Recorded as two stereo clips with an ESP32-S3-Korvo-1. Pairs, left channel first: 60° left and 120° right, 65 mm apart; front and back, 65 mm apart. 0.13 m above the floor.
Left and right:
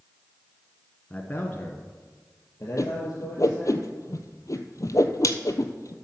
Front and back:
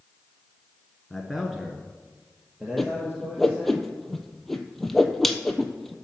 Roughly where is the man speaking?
Left.